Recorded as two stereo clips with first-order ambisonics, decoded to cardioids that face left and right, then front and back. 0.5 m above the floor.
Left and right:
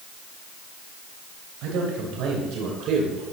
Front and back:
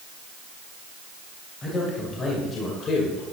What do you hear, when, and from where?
1.6 s a man speaking: 70° right, 2.5 m; by 3.2 s 45° right, 1.8 m